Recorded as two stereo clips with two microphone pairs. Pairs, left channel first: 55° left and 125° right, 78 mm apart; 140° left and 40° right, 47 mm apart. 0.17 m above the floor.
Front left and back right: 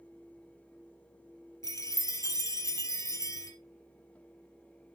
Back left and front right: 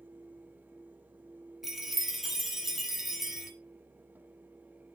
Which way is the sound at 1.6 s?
40° left.